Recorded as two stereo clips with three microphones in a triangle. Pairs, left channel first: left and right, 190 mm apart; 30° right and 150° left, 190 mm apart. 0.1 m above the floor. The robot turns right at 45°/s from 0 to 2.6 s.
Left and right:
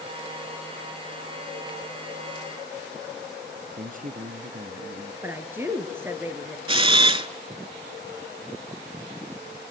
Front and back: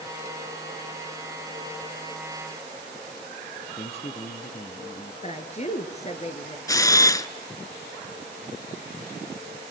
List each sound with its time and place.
3.8 s a man speaking: 75° right, 1.8 m
5.2 s a woman speaking: 20° right, 2 m
6.7 s a camera shutter: 80° right, 0.6 m